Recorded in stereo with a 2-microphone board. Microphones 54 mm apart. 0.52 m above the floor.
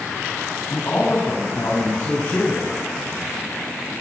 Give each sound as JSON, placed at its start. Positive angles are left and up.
{"t": 0.7, "sound": "a man speaking", "side_deg": 55, "distance_m": 5.5}